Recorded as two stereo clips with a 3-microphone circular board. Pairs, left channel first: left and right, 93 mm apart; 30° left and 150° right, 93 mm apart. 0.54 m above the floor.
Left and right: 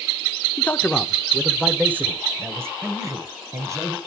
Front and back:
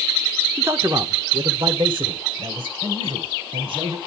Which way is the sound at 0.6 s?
155° left.